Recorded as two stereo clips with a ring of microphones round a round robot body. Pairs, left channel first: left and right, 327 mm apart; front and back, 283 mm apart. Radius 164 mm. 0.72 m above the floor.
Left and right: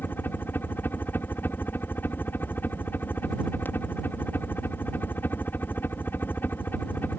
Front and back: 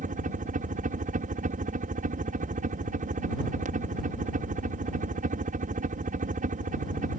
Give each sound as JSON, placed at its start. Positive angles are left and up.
{"t": 0.0, "sound": "a helicopter", "azimuth_deg": 165}